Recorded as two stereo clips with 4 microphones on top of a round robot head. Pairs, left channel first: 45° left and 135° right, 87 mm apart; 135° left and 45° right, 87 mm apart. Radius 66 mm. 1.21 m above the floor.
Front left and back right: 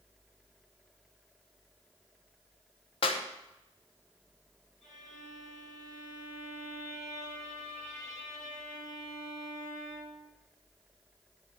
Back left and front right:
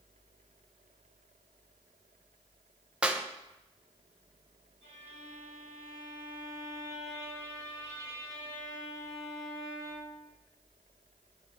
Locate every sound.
3.0 s a clap: 35° left, 0.9 m
4.8 s a violin: 40° right, 5 m